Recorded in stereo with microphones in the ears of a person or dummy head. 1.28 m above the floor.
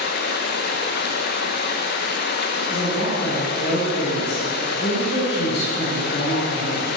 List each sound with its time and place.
0.0 s running water: 60° left (ahead or behind), 0.8 m
2.7 s a woman speaking: 80° left, 5 m